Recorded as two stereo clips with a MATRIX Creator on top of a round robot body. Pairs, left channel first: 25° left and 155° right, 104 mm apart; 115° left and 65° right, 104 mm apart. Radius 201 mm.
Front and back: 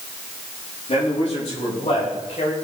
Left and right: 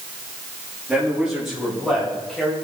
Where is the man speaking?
15° left, 6 m; by 2.5 s 30° left, 4.5 m.